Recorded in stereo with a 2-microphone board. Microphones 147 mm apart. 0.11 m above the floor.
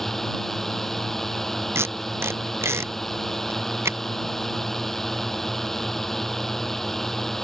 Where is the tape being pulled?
20° right (ahead or behind).